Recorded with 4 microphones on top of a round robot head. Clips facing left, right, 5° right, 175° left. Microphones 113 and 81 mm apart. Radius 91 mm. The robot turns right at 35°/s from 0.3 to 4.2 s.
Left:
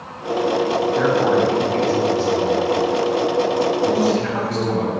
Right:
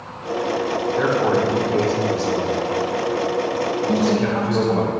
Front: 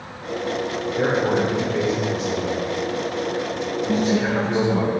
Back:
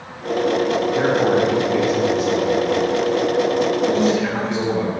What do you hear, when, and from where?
0.9 s a man speaking: straight behind, 2 m; by 4.9 s 70° right, 2 m
3.9 s a woman speaking: 165° left, 2.5 m; by 4.9 s 175° left, 2.5 m